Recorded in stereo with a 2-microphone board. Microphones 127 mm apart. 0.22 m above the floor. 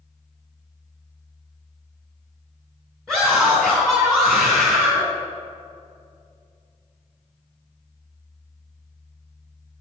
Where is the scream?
5° left (ahead or behind), 3 m.